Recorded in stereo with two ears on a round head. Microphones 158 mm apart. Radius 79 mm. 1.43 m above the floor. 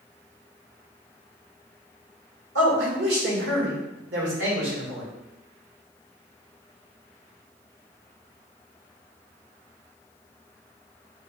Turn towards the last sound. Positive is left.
turn(degrees=-70)  # may be behind; listen again after turning